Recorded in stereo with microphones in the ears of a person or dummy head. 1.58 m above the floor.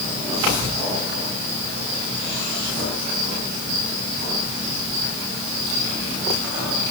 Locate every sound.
Only background noise.